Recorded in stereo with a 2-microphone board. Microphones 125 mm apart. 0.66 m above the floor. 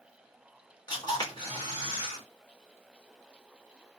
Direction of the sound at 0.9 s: 30° left (ahead or behind).